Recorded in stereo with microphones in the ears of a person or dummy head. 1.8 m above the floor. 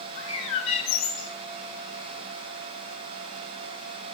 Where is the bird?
35° left (ahead or behind), 1.6 m.